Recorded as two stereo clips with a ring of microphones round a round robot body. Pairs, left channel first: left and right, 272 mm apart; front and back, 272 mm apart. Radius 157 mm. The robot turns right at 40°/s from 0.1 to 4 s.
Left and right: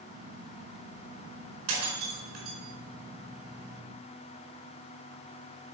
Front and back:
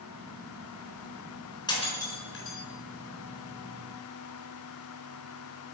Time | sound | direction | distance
1.7 | breaking glass | 75° right | 4.5 m